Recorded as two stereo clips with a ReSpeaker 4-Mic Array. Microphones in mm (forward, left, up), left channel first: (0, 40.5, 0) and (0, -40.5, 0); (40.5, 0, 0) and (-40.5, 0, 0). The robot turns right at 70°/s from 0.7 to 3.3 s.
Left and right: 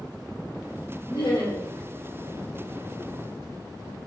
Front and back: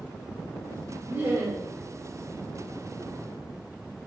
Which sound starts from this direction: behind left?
Laughter, at 1.1 s.